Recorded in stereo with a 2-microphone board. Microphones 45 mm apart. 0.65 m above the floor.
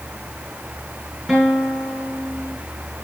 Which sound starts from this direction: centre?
A guitar, at 1.3 s.